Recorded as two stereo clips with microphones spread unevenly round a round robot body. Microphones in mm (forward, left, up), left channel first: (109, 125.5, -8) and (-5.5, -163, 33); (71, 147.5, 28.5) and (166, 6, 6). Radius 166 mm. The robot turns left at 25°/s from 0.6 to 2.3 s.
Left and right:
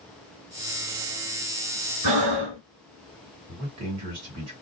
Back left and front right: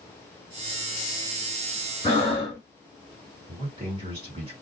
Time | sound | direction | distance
2.0 | breathing | 155° right | 1.0 m
3.5 | a man speaking | 95° right | 1.9 m